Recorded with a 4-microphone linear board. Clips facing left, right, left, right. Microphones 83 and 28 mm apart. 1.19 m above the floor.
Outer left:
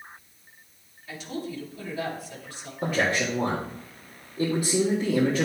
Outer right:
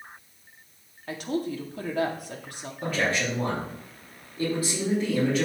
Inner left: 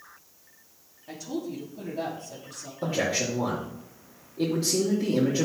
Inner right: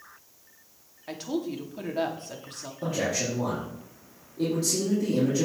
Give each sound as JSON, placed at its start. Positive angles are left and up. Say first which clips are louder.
{"t": 1.1, "sound": "a woman speaking", "louder": "outer right 5 dB, inner right 3 dB", "side_deg": -60, "distance_m": 2.0}
{"t": 2.8, "sound": "a man speaking", "louder": "outer left 2 dB, inner left 1 dB", "side_deg": 20, "distance_m": 2.5}